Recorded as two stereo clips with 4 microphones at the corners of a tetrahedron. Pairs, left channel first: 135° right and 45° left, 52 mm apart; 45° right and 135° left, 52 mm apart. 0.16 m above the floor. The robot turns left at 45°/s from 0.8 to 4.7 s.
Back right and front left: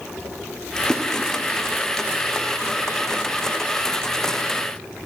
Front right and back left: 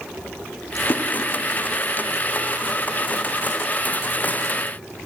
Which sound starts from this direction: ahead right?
A splash, at 0.8 s.